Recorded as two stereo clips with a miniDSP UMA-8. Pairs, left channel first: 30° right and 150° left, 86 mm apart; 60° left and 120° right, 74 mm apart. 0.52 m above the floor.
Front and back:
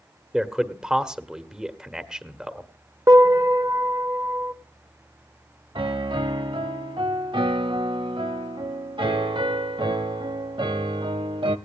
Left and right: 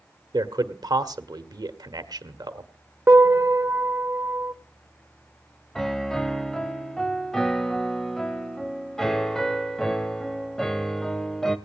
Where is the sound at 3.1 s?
175° right, 1.4 m.